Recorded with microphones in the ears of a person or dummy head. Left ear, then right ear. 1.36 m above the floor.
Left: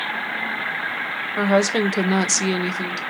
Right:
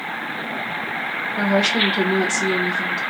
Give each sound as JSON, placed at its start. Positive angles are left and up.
{"t": 1.4, "sound": "a woman speaking", "side_deg": 40, "distance_m": 0.6}